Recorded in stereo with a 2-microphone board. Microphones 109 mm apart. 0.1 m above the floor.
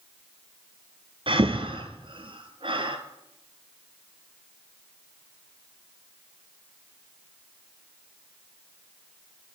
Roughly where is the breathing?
Right.